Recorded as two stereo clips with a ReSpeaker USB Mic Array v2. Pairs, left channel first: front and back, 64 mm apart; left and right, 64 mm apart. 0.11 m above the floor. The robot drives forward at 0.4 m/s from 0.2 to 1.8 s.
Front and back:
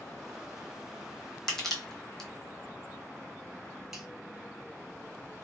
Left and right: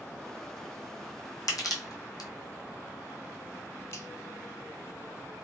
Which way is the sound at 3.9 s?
100° left.